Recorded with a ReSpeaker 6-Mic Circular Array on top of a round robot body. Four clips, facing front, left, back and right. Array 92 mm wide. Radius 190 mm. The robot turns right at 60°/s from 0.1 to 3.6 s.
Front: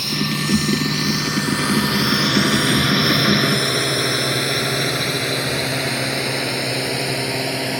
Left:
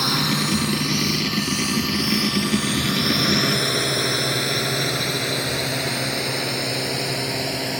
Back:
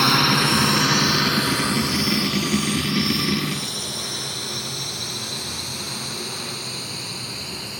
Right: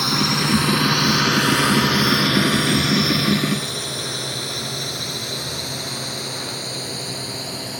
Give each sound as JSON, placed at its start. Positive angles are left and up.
{"t": 0.0, "sound": "a drone", "azimuth_deg": -175}